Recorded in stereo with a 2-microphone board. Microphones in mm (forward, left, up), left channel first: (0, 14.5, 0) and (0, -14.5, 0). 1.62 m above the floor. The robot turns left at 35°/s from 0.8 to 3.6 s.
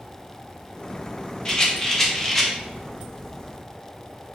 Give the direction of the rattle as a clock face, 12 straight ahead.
11 o'clock.